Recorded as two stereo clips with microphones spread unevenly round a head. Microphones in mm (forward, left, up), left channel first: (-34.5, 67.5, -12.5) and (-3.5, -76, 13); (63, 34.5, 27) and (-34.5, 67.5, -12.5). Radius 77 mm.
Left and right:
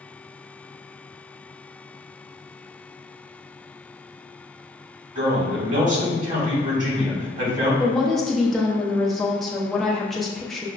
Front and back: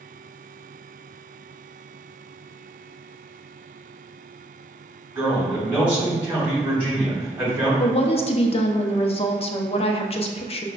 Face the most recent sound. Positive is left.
turn(degrees=20)